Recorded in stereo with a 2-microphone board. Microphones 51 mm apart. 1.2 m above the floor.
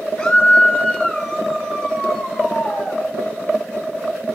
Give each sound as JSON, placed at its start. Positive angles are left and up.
{"t": 0.2, "sound": "a scream", "side_deg": 10, "distance_m": 8.0}